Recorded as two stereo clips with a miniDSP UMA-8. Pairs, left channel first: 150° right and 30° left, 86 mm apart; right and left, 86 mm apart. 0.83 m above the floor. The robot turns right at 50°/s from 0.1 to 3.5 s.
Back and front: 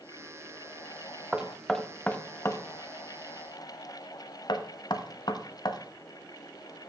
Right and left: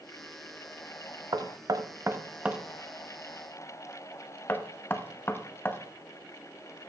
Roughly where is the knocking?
Left.